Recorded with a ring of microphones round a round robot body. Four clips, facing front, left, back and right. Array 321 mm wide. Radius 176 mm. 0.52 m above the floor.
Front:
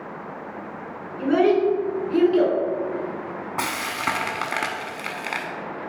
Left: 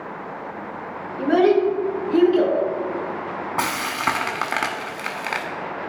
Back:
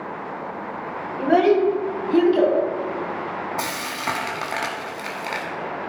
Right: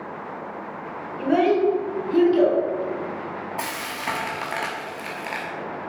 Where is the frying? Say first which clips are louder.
Left 6 dB, front 1 dB; 80° left, 1.2 m.